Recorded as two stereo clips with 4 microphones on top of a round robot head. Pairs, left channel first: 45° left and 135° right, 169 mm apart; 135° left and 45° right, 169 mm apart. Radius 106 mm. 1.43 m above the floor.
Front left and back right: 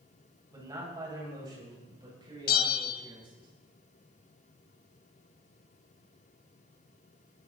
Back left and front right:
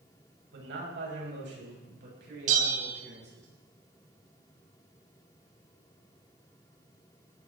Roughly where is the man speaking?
Ahead right.